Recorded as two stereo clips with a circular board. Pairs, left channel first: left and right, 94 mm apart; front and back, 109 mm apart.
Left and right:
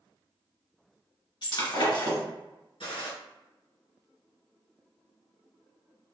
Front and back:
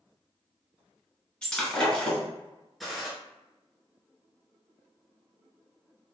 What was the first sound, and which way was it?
Breaking glass, 80° left.